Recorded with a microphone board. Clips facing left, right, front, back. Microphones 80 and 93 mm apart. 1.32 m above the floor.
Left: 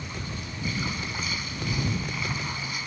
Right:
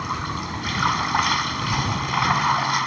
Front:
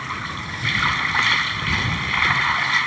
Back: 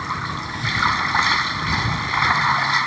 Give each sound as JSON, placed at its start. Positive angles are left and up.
{"t": 0.0, "sound": "running water", "azimuth_deg": -110}